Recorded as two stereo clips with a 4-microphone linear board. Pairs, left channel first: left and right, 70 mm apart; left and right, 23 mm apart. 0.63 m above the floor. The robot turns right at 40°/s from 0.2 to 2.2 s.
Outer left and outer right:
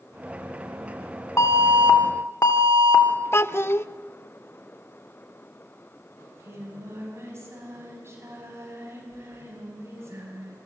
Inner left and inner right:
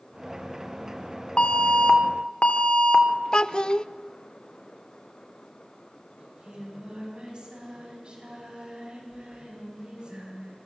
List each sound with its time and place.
1.4 s an alarm: 55° left, 2 m; by 3.0 s 90° left, 2 m
3.3 s a child speaking: 35° left (ahead or behind), 0.6 m
6.2 s singing: 40° right (ahead or behind), 5.5 m